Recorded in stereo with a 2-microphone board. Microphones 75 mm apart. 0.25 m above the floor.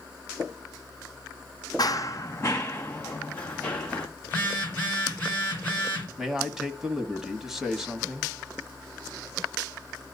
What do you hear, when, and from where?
1.8 s running footsteps: 60° left (ahead or behind), 0.6 m; by 4.1 s 15° left (ahead or behind), 2.5 m
4.2 s a phone buzzing: 25° left (ahead or behind), 3.5 m
6.2 s a man speaking: 5° right (ahead or behind), 1.3 m